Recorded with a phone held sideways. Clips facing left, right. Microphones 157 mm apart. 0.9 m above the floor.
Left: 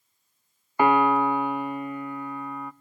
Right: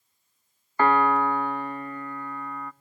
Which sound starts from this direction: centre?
A piano, at 0.8 s.